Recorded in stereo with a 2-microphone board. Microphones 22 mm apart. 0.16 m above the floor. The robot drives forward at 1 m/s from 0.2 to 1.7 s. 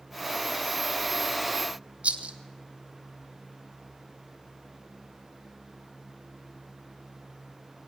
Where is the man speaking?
I don't hear a man speaking.